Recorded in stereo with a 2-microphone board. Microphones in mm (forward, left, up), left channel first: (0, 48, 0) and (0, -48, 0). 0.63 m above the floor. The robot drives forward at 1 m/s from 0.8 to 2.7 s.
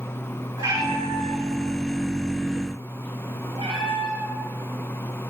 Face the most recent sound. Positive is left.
turn(degrees=-70)  # may be behind; listen again after turning